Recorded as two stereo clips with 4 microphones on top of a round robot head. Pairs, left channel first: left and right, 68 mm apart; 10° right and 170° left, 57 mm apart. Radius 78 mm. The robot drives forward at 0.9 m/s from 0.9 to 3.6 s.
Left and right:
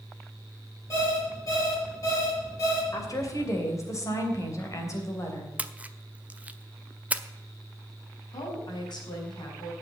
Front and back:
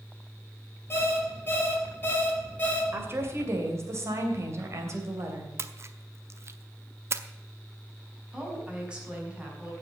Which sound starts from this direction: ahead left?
An alarm clock, at 0.9 s.